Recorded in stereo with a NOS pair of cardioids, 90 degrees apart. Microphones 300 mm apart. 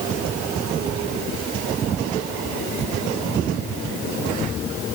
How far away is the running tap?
No running tap in this recording.